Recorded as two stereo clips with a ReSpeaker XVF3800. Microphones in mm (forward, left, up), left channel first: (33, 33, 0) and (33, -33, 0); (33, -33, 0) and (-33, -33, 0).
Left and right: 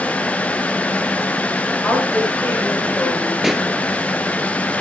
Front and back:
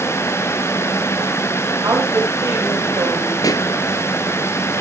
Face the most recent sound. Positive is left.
turn(degrees=-5)